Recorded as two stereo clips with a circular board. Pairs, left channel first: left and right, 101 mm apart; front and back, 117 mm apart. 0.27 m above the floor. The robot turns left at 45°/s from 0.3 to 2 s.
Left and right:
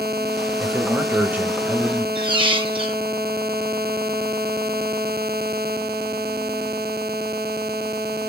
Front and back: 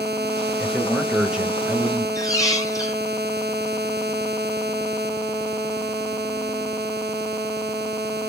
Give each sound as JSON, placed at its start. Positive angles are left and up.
{"t": 0.6, "sound": "a man speaking", "azimuth_deg": -75, "distance_m": 0.9}
{"t": 2.1, "sound": "a squeak", "azimuth_deg": -60, "distance_m": 0.9}